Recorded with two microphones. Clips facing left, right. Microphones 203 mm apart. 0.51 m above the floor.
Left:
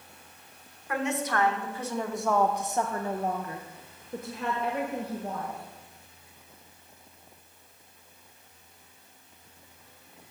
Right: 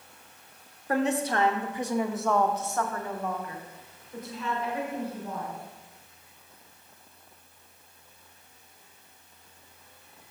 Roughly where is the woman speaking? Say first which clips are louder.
Right 4 dB; right.